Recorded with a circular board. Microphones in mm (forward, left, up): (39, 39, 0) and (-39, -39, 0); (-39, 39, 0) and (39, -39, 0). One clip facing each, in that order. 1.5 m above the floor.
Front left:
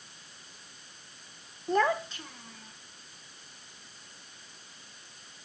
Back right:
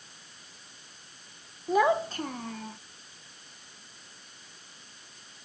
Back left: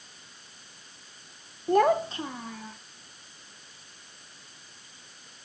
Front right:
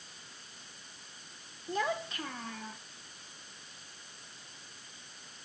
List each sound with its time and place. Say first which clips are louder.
1.7 s a child speaking: back right 3 dB, back left 12 dB; 135° left; by 2.8 s 135° right